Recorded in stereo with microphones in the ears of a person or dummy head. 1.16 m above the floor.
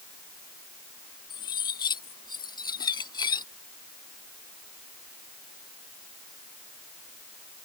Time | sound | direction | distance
1.3 | cutlery clinking | 25° left (ahead or behind) | ?